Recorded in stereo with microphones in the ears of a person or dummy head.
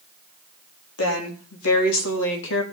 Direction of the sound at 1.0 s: 85° left.